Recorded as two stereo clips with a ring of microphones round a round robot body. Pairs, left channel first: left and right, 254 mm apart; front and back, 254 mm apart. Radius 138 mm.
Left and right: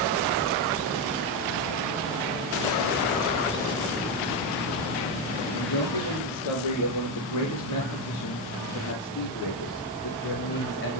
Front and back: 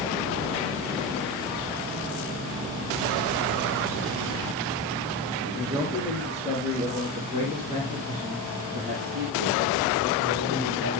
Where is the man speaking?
90° left, 6 m; by 11.0 s 135° left, 6.5 m.